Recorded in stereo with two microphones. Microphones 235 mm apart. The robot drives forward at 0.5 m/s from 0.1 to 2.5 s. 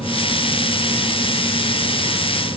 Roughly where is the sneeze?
I don't hear a sneeze.